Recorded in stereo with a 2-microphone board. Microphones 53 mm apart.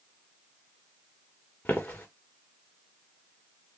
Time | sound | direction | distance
1.6 | footsteps | 40° left (ahead or behind) | 1.2 m